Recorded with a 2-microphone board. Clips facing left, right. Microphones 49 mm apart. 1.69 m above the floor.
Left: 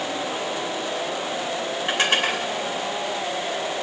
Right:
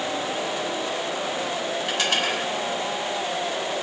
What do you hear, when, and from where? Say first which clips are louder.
1.9 s dishes clattering: left 4 dB; 30° left (ahead or behind), 2.5 m